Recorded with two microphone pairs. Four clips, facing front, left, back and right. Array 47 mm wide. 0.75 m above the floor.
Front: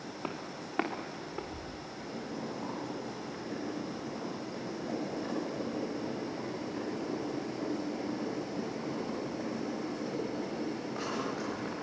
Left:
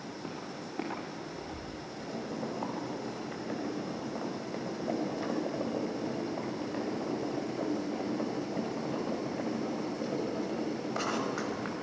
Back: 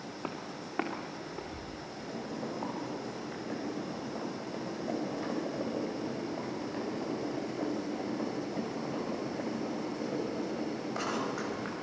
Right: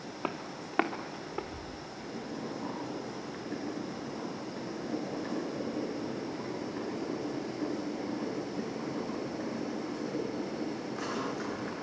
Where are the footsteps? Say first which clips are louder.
Right 6 dB, even; 95° right, 3.5 m; by 1.7 s 85° right, 4 m.